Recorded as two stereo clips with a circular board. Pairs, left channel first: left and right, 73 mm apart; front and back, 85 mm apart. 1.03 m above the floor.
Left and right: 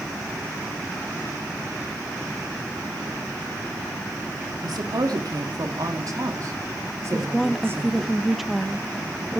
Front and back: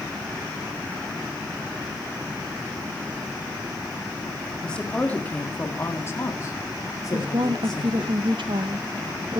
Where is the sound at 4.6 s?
80° right, 2.5 m; by 8.1 s 30° right, 2.5 m.